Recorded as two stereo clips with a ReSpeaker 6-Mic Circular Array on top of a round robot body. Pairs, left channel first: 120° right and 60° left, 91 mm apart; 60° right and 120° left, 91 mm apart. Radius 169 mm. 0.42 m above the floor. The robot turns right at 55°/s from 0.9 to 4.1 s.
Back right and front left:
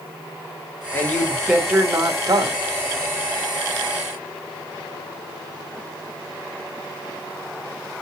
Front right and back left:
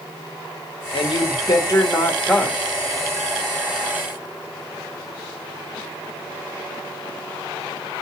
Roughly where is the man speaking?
Ahead right.